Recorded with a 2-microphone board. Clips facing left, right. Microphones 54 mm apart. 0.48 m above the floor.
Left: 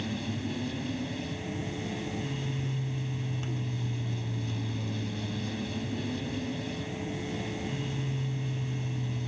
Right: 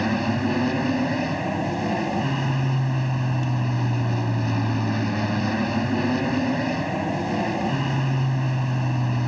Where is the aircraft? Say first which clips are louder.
Right 11 dB; 60° right (ahead or behind).